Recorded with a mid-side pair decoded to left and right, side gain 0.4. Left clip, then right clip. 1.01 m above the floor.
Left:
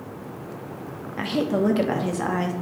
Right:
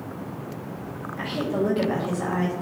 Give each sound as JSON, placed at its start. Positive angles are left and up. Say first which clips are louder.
{"t": 1.2, "sound": "a woman speaking", "louder": "left 3 dB", "azimuth_deg": 60, "distance_m": 1.2}